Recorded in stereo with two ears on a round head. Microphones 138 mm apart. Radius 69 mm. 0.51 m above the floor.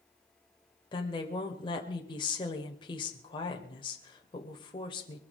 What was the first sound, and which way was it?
A woman speaking, 35° left (ahead or behind).